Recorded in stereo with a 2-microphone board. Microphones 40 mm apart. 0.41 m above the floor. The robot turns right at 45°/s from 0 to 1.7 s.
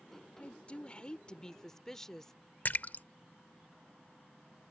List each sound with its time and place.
0.4 s a woman speaking: 100° left; by 2.3 s 155° left
2.6 s a splash: 45° left (ahead or behind)